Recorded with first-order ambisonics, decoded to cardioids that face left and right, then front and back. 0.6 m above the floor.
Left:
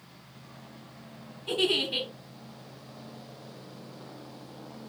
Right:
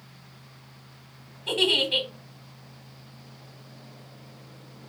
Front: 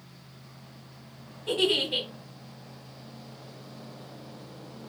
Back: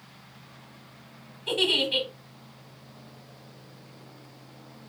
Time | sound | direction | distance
1.5 | a giggle | 120° right | 1.5 m